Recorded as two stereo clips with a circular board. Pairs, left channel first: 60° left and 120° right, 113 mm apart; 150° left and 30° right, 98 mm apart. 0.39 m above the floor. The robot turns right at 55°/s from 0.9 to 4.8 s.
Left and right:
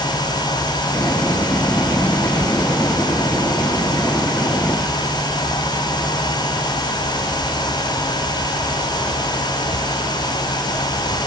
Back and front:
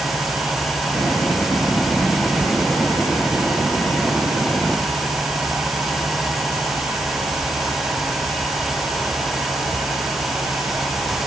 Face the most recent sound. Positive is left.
No sound to turn to.